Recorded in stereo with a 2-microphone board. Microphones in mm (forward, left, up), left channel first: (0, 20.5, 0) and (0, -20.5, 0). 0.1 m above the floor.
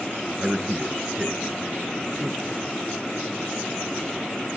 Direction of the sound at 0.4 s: 20° right (ahead or behind).